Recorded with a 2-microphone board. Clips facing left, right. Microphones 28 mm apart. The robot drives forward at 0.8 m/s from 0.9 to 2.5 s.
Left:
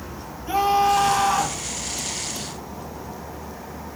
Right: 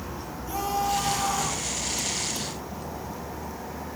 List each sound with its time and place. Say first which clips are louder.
0.5 s a scream: left 9 dB; 40° left (ahead or behind), 5.5 m